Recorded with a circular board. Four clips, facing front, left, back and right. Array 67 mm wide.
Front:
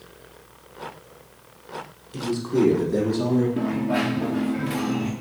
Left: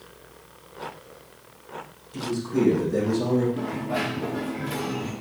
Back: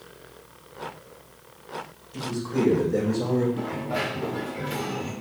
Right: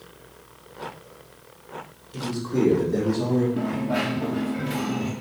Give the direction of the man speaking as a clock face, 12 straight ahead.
12 o'clock.